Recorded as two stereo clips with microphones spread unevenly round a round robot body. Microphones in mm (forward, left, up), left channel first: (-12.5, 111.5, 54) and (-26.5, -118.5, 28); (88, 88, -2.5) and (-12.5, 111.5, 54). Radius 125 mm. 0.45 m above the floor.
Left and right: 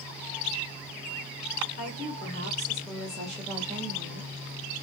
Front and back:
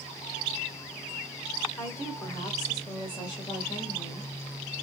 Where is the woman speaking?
35° left, 1.6 m; by 4.3 s 40° right, 1.8 m.